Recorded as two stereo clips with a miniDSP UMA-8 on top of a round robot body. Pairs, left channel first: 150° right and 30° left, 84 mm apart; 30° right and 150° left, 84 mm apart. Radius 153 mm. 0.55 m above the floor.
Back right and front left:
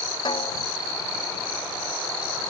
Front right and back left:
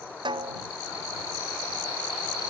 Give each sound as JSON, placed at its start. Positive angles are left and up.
{"t": 0.2, "sound": "a snare drum", "azimuth_deg": 180}